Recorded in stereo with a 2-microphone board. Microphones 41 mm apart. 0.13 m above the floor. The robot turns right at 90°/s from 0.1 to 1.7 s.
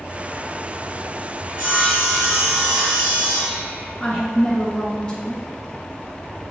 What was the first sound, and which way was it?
Sawing, 40° right (ahead or behind).